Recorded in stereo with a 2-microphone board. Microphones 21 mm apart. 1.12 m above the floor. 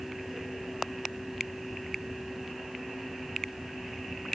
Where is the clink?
I don't hear a clink.